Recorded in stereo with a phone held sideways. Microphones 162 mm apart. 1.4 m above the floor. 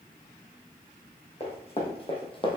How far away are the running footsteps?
About 4 m.